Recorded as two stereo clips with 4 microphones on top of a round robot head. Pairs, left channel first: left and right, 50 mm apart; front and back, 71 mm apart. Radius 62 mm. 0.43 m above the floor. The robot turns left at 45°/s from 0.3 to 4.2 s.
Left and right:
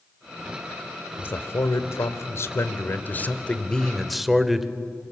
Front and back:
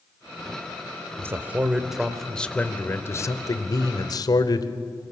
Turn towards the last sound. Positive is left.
turn(degrees=-5)